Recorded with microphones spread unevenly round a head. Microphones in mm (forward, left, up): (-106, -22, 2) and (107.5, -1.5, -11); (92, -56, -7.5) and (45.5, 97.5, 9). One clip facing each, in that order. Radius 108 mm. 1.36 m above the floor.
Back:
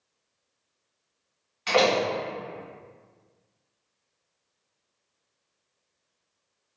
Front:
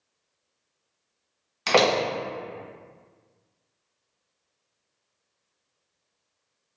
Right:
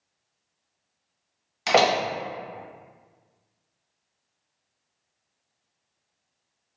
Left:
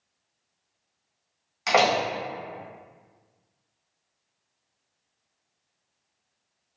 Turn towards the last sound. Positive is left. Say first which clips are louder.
# front 1 dB, right 1 dB
turn(degrees=-15)